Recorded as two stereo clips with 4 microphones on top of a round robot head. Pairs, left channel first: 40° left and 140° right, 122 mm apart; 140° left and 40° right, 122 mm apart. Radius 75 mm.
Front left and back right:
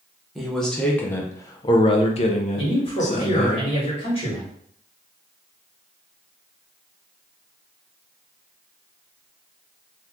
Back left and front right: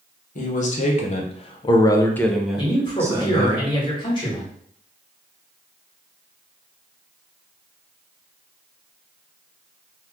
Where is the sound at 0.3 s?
130° left, 1.1 m; by 3.6 s 15° left, 1.0 m.